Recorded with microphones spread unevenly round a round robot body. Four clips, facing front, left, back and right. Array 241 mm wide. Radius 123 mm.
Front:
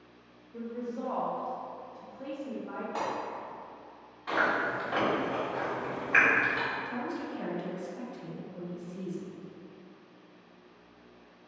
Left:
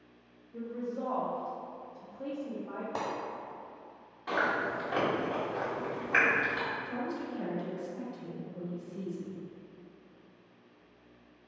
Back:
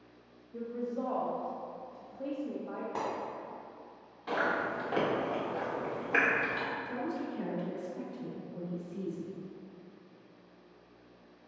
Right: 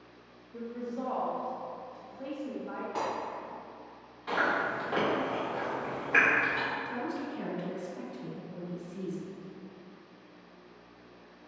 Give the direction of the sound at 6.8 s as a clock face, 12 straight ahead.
4 o'clock.